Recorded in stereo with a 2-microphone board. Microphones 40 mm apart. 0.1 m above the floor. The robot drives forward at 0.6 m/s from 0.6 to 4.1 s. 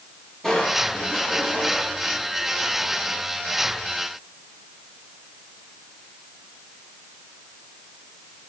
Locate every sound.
0.4 s crushing: 5° left (ahead or behind), 7.5 m